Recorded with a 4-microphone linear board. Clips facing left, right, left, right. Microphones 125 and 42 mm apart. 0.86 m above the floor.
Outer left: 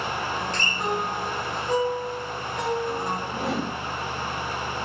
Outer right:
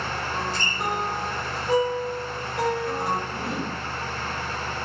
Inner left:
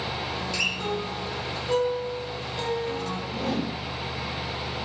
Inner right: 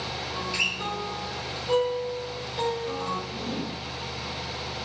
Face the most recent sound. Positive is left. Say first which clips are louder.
# outer left 2 dB, inner left 4 dB
turn(degrees=75)  # may be behind; listen again after turning